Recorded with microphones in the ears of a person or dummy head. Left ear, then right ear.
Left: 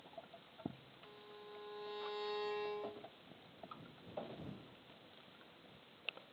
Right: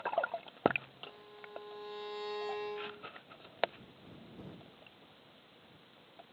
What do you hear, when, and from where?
1.0 s a violin: 5° right (ahead or behind)